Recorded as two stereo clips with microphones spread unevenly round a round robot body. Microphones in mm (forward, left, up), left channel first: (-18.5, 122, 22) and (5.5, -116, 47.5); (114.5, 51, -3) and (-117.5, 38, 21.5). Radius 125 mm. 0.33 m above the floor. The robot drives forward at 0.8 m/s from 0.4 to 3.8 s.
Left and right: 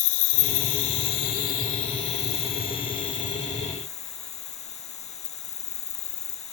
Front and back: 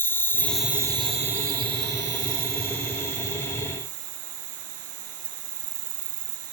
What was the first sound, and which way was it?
An insect, 85° left.